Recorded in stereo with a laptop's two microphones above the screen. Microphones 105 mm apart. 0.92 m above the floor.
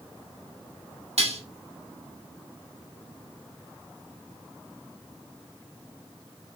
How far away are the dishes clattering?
About 0.8 m.